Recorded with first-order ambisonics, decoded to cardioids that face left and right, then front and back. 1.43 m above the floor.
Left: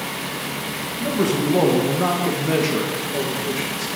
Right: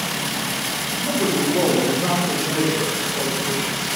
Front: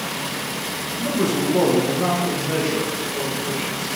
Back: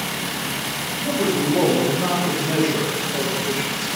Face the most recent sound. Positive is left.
turn(degrees=115)